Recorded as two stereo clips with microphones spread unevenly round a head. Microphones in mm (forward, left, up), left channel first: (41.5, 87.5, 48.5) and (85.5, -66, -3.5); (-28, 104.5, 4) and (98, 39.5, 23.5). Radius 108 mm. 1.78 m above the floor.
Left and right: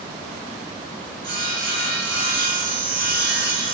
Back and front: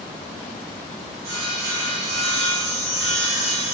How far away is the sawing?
About 0.7 m.